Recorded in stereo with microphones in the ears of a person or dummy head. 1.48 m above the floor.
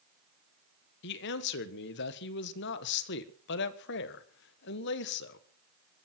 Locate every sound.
1.0 s a man speaking: 60° left (ahead or behind), 1.5 m